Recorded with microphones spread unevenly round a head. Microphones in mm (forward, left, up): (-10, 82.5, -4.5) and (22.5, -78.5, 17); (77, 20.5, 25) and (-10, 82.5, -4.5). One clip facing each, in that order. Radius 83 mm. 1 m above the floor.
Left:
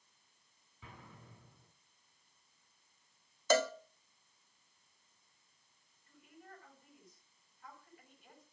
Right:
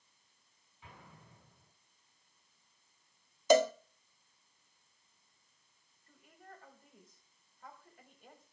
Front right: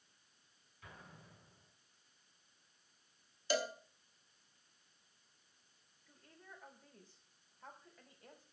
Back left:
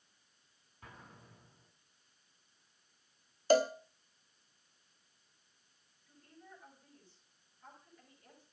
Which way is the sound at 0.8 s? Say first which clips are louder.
Left 1 dB, back left 2 dB; 90° left.